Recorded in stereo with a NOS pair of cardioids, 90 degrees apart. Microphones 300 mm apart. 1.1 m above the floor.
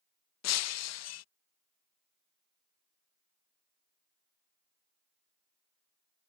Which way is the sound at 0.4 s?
60° left.